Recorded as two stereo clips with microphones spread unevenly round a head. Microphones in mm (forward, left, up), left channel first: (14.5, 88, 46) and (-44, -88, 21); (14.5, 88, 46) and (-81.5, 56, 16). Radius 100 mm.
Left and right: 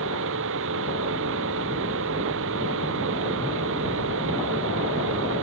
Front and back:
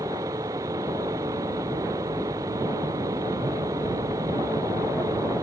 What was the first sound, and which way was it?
A fan, 90° right.